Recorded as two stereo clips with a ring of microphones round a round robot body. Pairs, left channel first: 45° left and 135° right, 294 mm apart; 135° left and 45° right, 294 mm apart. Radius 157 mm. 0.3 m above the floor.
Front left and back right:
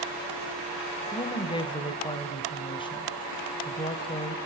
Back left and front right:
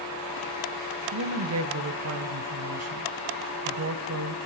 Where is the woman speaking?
25° right, 1.9 m.